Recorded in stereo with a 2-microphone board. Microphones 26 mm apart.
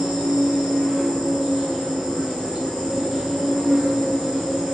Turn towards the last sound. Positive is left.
turn(degrees=-40)  # may be behind; listen again after turning